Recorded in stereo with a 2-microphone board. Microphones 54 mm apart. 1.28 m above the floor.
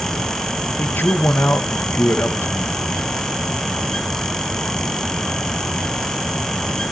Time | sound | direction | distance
0.8 | a man speaking | 40° left (ahead or behind) | 1.2 m